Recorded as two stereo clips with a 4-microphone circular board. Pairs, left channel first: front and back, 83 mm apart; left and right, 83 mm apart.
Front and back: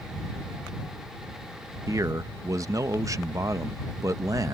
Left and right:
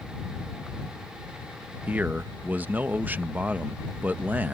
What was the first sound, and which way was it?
A man speaking, 155° right.